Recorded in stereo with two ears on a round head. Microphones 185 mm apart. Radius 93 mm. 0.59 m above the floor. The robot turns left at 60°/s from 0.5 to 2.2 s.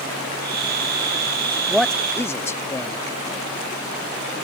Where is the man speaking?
5° right (ahead or behind); by 3.0 s 15° left (ahead or behind).